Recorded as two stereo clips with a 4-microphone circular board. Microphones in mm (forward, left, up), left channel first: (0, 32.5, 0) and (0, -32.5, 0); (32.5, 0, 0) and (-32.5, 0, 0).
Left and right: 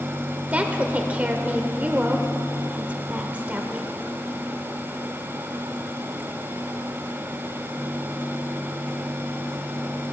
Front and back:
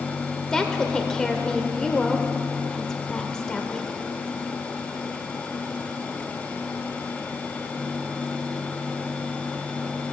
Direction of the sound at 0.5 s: 65° right.